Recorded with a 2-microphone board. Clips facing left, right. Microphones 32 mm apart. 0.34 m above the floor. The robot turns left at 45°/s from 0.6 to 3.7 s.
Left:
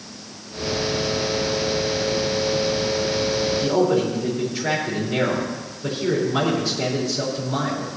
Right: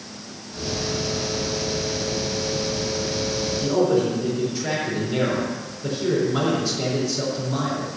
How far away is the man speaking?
About 4 m.